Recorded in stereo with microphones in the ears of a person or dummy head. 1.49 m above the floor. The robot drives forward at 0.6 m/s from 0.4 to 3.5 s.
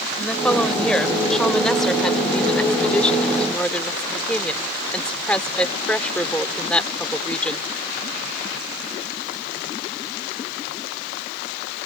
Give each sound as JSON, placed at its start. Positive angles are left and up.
{"t": 0.2, "sound": "a woman speaking", "side_deg": 5}